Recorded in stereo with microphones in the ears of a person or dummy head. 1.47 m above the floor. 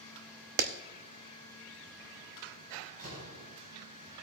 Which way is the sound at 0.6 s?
50° right (ahead or behind).